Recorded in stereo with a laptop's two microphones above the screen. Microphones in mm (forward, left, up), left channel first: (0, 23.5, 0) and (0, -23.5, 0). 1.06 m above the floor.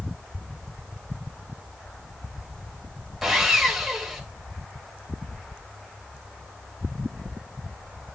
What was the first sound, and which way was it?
Sawing, 5° right (ahead or behind).